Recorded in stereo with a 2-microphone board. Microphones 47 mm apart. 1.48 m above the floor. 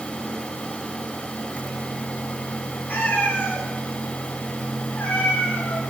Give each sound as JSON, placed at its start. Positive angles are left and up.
{"t": 2.9, "sound": "a cat meowing", "side_deg": 40, "distance_m": 4.0}